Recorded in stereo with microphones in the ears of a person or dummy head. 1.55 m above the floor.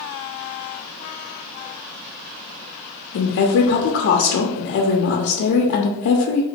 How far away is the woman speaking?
About 0.6 m.